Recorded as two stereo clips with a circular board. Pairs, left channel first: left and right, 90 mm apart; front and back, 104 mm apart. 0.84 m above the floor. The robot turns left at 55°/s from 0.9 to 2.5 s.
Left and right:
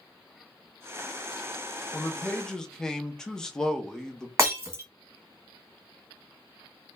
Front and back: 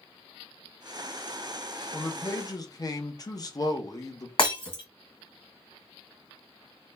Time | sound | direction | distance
1.9 | a man speaking | 40° left | 0.5 m
4.4 | breaking glass | 35° right | 1.5 m